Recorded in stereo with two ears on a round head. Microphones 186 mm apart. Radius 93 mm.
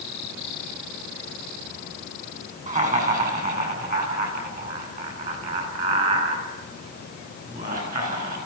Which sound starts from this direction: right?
Laughter, at 2.7 s.